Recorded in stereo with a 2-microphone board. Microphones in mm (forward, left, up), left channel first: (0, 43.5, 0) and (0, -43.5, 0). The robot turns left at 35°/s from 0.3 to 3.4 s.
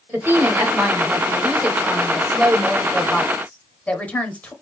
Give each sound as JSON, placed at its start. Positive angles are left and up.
{"t": 0.1, "sound": "a woman speaking", "side_deg": -25, "distance_m": 0.9}